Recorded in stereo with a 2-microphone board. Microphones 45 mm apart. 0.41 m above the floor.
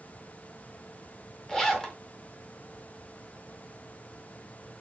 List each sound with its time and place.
1.5 s a zipper: 10° left (ahead or behind), 0.5 m